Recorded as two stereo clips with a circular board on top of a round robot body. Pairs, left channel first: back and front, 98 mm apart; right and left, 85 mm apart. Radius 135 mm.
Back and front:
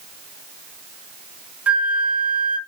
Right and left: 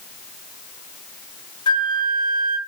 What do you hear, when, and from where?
1.7 s a flute: 75° right, 1.0 m